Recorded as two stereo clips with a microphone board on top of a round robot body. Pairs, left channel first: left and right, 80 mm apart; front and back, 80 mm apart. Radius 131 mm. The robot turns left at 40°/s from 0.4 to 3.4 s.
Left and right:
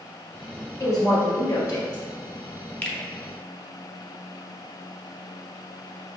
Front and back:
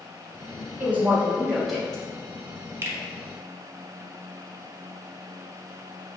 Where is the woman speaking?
125° left, 1.4 m; by 2.0 s 75° left, 1.4 m.